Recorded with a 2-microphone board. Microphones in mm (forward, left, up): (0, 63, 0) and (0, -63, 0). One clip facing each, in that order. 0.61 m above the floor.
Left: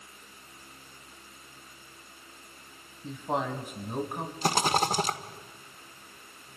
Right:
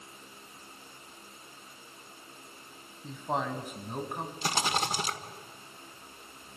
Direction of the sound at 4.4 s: 40° left (ahead or behind).